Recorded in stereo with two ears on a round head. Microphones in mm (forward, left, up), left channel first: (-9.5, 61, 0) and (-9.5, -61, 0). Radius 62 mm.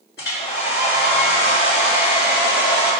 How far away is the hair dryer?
About 3 m.